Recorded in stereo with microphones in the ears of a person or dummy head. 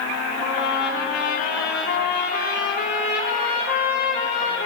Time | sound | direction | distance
0.4 | a trumpet | 50° left (ahead or behind) | 4.5 m